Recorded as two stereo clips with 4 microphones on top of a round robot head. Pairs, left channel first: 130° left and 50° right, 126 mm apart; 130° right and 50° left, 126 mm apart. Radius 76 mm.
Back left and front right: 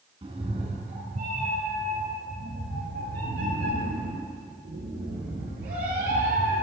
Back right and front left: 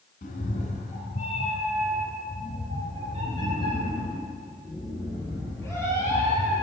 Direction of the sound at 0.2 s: 105° right.